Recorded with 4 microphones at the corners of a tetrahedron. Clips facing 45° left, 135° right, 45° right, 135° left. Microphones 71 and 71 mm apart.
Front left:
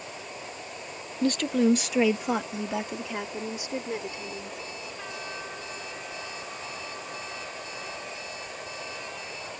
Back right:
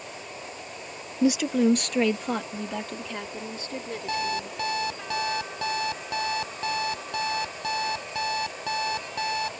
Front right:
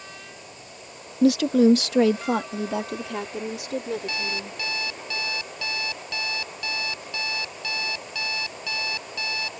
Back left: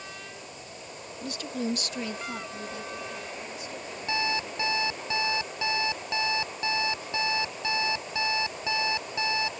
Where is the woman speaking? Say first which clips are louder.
Back right 2 dB, front right 16 dB; 60° right; by 4.6 s 30° right.